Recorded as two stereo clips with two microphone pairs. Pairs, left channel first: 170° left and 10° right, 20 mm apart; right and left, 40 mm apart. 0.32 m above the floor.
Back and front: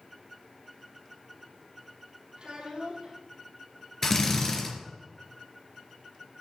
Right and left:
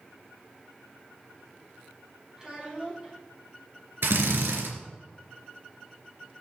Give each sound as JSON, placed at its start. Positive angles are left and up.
{"t": 2.4, "sound": "a child speaking", "azimuth_deg": 20, "distance_m": 6.5}
{"t": 4.0, "sound": "a drill", "azimuth_deg": 95, "distance_m": 3.0}